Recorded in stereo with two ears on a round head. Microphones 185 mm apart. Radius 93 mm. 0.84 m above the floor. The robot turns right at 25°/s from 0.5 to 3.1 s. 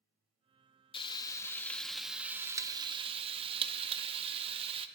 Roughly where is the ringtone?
I don't hear a ringtone.